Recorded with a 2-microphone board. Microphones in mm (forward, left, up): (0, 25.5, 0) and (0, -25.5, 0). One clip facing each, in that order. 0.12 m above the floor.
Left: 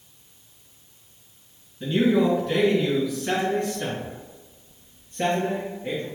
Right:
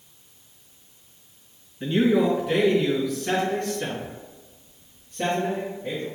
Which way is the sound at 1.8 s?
25° right (ahead or behind).